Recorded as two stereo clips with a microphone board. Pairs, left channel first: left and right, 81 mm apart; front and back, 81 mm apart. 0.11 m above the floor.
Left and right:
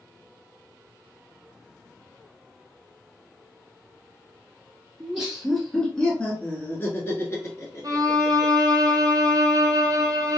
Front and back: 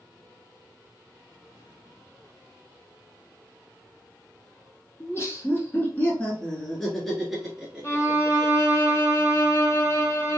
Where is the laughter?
15° right, 1.3 m; by 8.5 s 110° left, 1.6 m.